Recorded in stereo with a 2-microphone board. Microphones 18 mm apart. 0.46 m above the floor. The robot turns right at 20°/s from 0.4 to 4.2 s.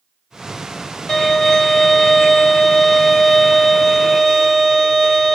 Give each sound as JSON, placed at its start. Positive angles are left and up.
{"t": 1.1, "sound": "a violin", "azimuth_deg": 110, "distance_m": 1.7}